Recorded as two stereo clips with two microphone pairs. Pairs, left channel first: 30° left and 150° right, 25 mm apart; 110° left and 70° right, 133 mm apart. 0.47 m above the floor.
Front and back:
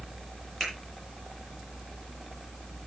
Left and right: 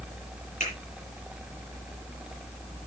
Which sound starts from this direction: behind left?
A finger snap, at 0.6 s.